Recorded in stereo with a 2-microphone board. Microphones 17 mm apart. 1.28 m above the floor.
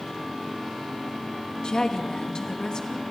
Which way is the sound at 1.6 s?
45° left (ahead or behind).